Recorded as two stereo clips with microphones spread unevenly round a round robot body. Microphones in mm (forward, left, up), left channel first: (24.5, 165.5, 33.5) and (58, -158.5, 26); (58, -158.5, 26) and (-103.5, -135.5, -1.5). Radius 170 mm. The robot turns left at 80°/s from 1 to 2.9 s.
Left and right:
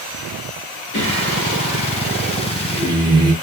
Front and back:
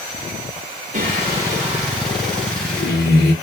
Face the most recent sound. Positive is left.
turn(degrees=-10)